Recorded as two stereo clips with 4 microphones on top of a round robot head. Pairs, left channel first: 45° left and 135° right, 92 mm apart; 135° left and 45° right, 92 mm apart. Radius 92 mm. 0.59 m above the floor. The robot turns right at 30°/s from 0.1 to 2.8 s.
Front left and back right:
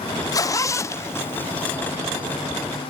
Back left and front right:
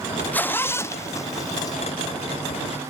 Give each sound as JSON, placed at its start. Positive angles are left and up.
{"t": 0.3, "sound": "a zipper", "azimuth_deg": 70, "distance_m": 0.6}